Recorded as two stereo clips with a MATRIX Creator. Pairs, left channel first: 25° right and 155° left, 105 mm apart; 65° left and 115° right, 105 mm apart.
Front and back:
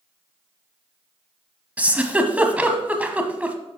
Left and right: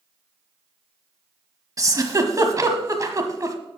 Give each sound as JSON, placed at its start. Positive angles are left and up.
{"t": 1.8, "sound": "a giggle", "azimuth_deg": -135, "distance_m": 1.3}